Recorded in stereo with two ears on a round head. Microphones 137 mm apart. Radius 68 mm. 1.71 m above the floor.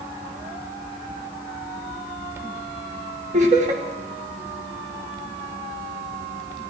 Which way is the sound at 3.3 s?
50° right (ahead or behind).